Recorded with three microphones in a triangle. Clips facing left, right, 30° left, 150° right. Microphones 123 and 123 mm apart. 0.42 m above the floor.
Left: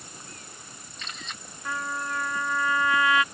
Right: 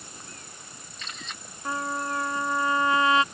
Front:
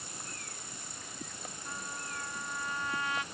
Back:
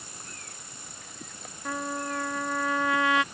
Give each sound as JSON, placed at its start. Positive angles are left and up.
{"t": 1.6, "sound": "a trumpet", "azimuth_deg": -150}